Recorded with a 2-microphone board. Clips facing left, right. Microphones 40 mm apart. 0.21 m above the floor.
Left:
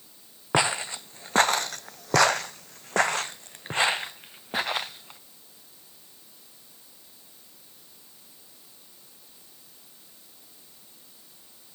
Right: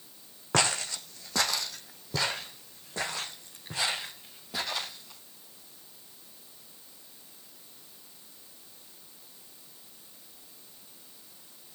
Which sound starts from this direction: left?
Footsteps, at 0.5 s.